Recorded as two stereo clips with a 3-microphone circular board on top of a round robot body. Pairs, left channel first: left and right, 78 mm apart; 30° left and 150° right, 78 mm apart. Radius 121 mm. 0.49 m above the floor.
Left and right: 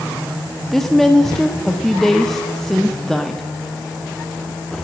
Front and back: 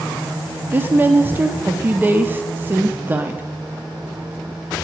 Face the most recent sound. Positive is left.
turn(degrees=175)